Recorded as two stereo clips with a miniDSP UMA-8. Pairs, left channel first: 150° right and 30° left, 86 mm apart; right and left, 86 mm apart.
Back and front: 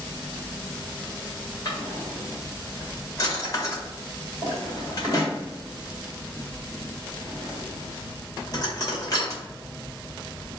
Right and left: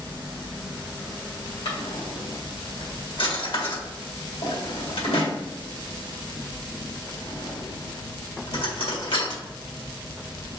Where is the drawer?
100° right, 1.6 m.